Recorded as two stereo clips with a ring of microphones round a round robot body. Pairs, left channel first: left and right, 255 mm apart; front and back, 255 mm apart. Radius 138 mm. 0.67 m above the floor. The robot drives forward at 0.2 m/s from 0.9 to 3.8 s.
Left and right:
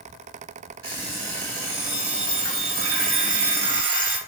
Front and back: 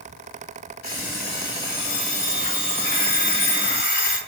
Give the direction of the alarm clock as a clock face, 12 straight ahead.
2 o'clock.